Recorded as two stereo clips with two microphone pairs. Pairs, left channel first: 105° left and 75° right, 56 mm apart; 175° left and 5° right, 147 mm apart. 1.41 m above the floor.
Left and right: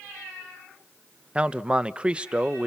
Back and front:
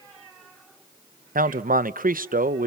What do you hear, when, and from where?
1.4 s a man speaking: 10° right, 0.8 m